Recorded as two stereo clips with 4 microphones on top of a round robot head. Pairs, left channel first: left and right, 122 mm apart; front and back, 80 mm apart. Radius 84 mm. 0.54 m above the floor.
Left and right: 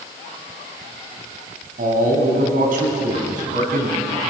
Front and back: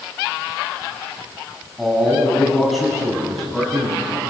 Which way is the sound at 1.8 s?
90° right.